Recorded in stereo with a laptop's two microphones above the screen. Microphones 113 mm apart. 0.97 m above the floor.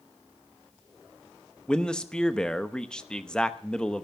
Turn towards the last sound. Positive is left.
turn(degrees=5)  # may be behind; listen again after turning